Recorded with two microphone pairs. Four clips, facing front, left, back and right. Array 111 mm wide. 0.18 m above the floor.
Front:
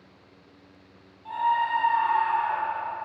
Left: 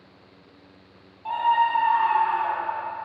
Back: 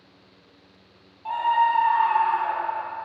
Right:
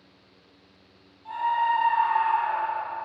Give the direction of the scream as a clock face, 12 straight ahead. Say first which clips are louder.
Left 3 dB, back 4 dB; 8 o'clock.